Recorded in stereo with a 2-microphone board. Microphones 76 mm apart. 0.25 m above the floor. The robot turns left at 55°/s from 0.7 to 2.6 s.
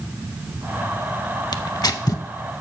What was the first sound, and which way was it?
Tearing paper, 65° left (ahead or behind).